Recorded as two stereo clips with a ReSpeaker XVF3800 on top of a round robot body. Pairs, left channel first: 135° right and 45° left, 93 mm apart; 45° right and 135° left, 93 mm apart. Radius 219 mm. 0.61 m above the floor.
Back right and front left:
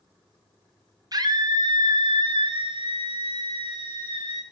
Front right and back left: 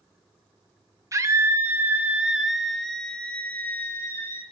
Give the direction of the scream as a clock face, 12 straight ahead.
9 o'clock.